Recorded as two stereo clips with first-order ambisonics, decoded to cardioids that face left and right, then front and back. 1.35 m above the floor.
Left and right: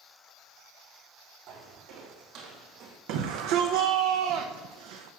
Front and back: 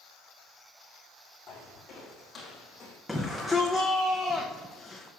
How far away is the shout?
About 0.8 m.